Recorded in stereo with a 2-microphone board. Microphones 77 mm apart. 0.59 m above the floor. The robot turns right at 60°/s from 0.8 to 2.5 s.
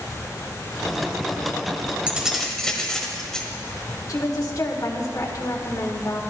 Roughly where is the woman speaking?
Left.